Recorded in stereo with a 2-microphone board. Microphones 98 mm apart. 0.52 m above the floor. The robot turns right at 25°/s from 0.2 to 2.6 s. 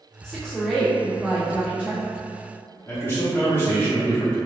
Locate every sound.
0.2 s a woman speaking: 165° left, 1.4 m; by 2.0 s 150° right, 1.4 m
2.9 s a man speaking: 25° left (ahead or behind), 0.8 m